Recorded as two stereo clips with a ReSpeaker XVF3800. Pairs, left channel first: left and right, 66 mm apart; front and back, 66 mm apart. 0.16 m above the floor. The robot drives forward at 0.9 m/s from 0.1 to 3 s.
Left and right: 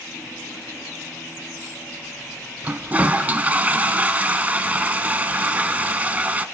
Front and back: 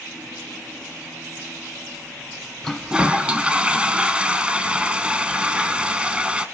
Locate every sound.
2.6 s a toilet flushing: 70° right, 0.7 m; by 6.5 s 125° right, 0.7 m